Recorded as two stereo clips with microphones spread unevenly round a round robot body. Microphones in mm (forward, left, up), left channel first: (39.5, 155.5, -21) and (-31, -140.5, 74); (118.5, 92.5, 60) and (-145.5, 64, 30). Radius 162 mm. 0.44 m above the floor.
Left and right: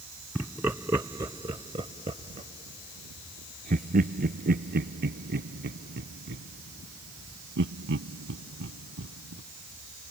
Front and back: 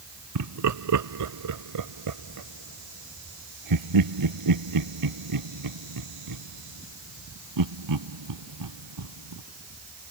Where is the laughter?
170° left; by 9.4 s 160° right.